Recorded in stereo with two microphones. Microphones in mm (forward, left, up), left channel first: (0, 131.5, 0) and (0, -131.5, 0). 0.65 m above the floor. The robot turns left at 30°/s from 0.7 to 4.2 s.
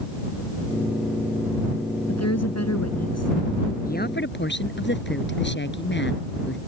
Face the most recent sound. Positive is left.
turn(degrees=45)  # may be behind; listen again after turning